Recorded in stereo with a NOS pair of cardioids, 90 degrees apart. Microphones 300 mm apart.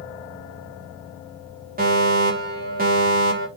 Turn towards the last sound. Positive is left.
turn(degrees=-30)